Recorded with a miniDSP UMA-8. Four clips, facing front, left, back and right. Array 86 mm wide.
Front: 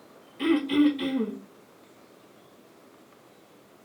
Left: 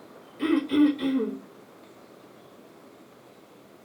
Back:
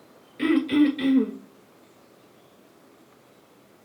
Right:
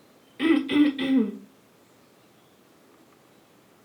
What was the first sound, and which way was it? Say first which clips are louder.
Throat clearing: right 1 dB, back 2 dB; 130° right.